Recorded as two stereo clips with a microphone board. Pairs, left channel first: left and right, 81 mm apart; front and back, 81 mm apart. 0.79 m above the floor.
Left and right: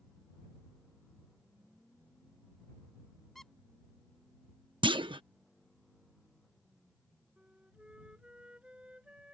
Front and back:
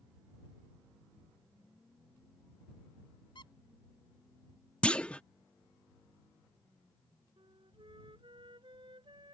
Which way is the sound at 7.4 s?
170° right.